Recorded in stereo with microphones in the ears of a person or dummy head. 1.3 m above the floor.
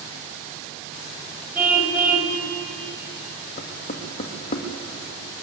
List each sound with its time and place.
1.6 s a car horn: 10° right (ahead or behind), 2.5 m
3.6 s knocking: 45° left (ahead or behind), 2 m